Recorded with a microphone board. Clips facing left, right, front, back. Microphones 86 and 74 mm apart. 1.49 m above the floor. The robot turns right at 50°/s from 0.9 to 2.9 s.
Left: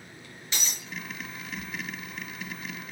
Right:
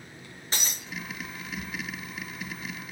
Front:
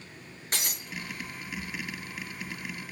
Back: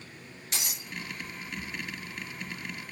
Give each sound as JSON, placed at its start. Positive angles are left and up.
{"t": 0.5, "sound": "breaking glass", "azimuth_deg": -40, "distance_m": 4.0}